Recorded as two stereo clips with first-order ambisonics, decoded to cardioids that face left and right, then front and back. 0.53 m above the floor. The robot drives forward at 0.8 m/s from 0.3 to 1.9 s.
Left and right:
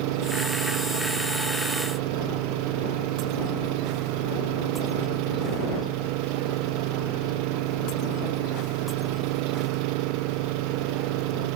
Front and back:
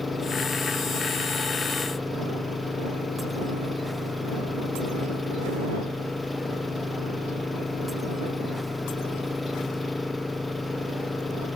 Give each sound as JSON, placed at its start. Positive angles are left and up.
{"t": 0.0, "sound": "an engine running", "azimuth_deg": -80}